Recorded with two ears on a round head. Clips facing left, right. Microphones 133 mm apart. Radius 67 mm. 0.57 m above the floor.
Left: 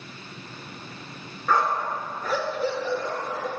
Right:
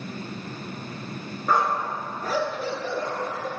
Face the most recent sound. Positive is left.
turn(degrees=-55)  # may be behind; listen again after turning